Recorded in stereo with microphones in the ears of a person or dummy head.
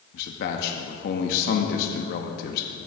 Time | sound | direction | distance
0.1 | a man speaking | 50° left (ahead or behind) | 0.8 m